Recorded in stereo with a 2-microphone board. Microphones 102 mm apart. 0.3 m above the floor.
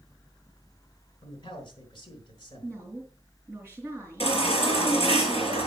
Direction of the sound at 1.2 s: 45° left (ahead or behind).